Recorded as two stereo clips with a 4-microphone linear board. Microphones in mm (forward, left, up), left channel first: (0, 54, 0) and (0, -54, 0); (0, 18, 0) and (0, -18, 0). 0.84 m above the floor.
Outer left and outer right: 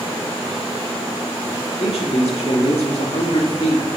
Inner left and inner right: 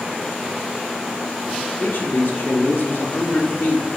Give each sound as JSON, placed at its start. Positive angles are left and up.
{"t": 1.8, "sound": "a man speaking", "side_deg": 70, "distance_m": 1.6}